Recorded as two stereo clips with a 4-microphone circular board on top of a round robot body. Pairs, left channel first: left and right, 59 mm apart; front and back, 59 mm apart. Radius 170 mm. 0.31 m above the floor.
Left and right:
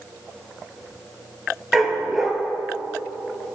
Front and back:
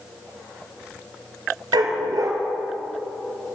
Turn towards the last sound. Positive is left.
turn(degrees=-175)